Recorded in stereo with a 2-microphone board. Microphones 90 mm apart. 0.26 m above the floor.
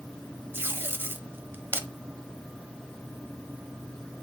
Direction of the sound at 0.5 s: 25° right (ahead or behind).